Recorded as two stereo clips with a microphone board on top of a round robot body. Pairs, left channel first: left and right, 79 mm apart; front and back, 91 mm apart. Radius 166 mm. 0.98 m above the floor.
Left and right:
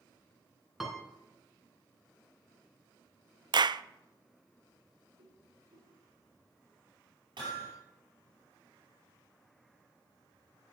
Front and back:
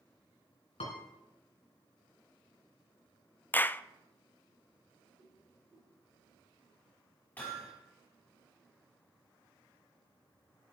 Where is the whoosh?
90° right, 5.5 m.